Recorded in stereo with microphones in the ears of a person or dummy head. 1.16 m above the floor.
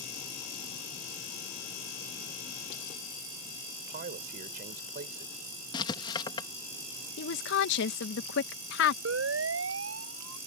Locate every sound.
3.8 s a man speaking: 45° right (ahead or behind)
5.7 s writing: 25° left (ahead or behind)
7.2 s a woman speaking: 65° left (ahead or behind)
9.1 s a siren: 85° right